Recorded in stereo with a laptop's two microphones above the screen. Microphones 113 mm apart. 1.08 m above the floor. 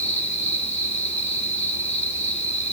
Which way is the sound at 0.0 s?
70° left (ahead or behind).